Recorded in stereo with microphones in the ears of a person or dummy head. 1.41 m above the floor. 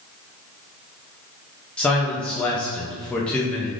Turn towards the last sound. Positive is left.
turn(degrees=10)  # may be behind; listen again after turning